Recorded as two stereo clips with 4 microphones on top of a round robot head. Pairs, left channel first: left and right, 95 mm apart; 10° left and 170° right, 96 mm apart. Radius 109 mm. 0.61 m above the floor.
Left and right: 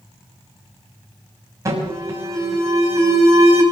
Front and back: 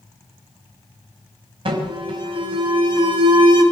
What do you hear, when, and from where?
1.6 s an alarm: 145° right, 5 m